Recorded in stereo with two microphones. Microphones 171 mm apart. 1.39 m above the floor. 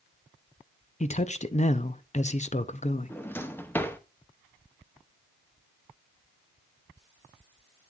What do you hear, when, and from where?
1.0 s a man speaking: 40° left (ahead or behind), 0.6 m
3.1 s a drawer: 10° left (ahead or behind), 0.7 m